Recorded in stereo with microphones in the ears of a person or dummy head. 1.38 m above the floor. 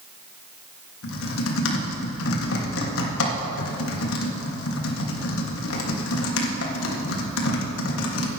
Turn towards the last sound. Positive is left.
turn(degrees=85)